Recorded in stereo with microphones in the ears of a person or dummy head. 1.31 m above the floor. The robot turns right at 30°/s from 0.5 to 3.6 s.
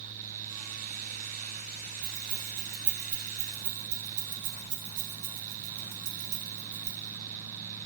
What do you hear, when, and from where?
2.0 s keys jangling: 35° right (ahead or behind), 1.9 m; by 7.9 s 80° right, 1.9 m